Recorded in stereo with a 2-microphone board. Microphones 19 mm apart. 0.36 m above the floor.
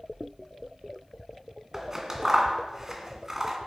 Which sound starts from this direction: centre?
Scissors, at 1.7 s.